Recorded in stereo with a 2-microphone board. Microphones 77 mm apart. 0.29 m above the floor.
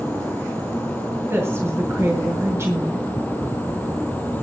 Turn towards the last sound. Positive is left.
turn(degrees=-35)  # may be behind; listen again after turning